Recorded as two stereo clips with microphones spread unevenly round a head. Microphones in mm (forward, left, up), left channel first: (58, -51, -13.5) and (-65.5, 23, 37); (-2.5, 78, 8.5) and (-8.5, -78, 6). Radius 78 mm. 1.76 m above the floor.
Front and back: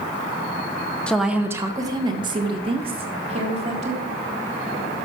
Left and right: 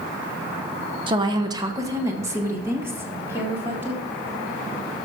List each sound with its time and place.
1.1 s a woman speaking: 135° right, 0.8 m; by 4.0 s 170° right, 4 m